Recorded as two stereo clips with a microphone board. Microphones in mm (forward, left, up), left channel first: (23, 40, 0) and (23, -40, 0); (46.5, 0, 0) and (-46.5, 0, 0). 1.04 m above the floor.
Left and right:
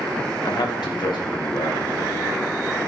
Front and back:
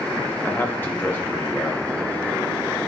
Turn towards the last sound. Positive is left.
turn(degrees=70)